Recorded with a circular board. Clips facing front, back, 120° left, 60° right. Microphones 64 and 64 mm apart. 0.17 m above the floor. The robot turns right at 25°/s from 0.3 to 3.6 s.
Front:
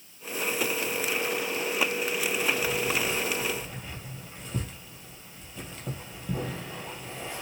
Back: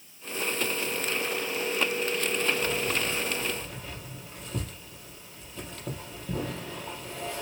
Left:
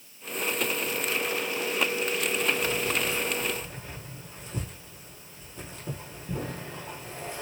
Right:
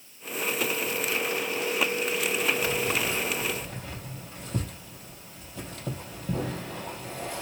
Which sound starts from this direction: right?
Keys jangling, at 2.6 s.